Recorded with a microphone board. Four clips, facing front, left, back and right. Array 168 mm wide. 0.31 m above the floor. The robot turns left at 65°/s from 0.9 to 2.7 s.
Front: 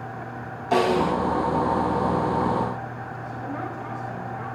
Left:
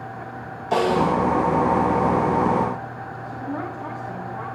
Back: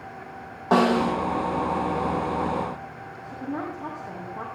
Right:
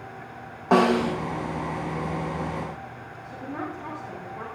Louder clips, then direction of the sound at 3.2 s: Left 3 dB, back 2 dB; 135° left.